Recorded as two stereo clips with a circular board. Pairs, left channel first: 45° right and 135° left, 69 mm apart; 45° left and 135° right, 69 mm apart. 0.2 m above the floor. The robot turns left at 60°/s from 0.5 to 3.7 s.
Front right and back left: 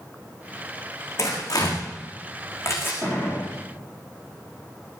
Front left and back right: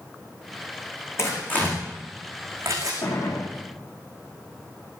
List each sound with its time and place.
1.2 s tearing paper: straight ahead, 5.5 m; by 2.9 s 105° right, 5.5 m
3.0 s a gunshot: 25° left, 6.5 m; by 3.5 s 5° right, 6.5 m